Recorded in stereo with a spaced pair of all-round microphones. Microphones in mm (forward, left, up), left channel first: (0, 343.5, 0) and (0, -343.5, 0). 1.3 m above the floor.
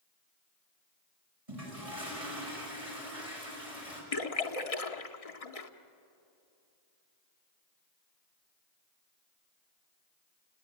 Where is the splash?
55° left (ahead or behind), 1.2 m.